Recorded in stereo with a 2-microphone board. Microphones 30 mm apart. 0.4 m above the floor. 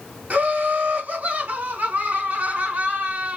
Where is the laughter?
65° right (ahead or behind), 3.5 m.